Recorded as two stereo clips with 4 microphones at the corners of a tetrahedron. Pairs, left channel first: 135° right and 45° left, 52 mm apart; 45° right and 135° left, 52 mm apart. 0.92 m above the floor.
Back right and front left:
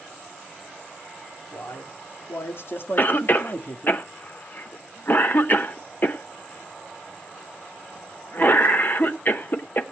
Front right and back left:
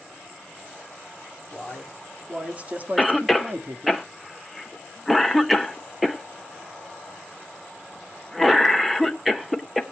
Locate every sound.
1.5 s a man speaking: 145° right, 2.5 m; by 4.0 s 160° left, 1.5 m
3.0 s a cough: 135° right, 1.2 m